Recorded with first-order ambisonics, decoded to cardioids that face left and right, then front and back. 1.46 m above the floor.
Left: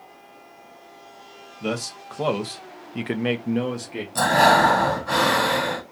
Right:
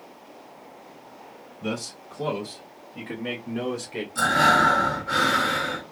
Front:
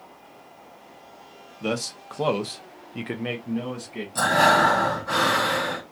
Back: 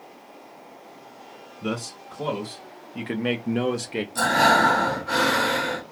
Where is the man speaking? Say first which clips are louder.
Left 4 dB, front 3 dB; 35° left, 1.2 m; by 4.0 s 175° left, 0.7 m.